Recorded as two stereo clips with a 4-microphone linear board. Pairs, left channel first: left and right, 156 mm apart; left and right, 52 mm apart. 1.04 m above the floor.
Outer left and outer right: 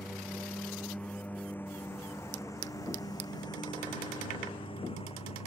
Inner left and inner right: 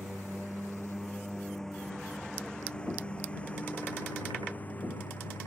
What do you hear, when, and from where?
0.0 s a lawn mower: centre (ahead or behind); by 5.5 s 40° left (ahead or behind)